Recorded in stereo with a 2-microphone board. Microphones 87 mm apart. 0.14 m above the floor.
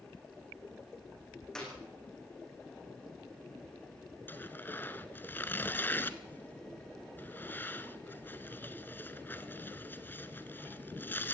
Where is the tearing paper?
25° left (ahead or behind), 1.0 m.